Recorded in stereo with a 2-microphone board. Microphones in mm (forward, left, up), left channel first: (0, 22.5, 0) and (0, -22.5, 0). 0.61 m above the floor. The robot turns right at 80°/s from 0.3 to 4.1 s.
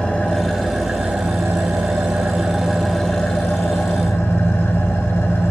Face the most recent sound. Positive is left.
turn(degrees=95)